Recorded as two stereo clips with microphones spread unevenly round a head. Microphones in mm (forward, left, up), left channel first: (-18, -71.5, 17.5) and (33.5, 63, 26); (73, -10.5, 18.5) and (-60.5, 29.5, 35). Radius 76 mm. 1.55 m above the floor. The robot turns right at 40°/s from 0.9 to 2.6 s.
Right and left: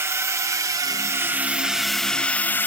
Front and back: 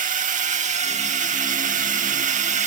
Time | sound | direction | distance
0.0 | a drone | 140° left | ?